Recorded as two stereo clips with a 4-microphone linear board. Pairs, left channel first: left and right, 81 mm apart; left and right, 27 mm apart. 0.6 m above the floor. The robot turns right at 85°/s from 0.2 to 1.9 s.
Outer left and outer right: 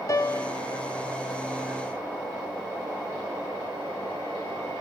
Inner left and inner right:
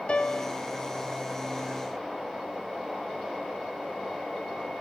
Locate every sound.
0.1 s a piano: 140° left, 0.6 m; by 0.6 s 170° left, 0.6 m